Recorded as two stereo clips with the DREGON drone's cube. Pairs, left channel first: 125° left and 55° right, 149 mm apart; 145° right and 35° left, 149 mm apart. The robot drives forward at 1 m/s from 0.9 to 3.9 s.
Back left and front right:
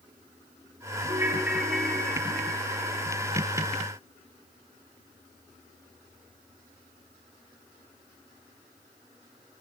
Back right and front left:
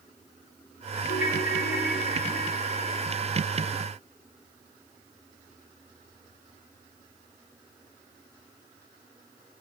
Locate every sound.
1.1 s a ringtone: 125° right, 1.3 m; by 3.0 s 160° right, 3 m